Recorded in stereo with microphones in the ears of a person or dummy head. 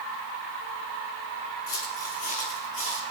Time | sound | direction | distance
1.7 | footsteps | 45° left (ahead or behind) | 3 m